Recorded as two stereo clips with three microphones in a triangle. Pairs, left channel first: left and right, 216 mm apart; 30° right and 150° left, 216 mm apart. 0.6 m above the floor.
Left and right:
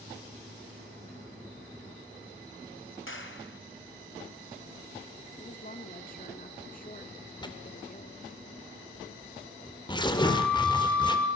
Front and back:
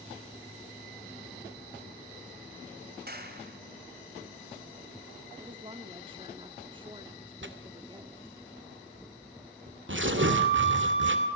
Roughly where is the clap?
Left.